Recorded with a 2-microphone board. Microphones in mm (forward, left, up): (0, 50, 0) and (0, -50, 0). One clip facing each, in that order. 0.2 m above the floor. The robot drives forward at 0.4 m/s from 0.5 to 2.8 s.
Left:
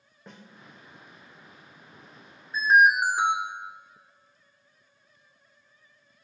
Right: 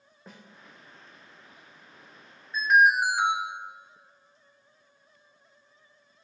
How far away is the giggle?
No giggle in this recording.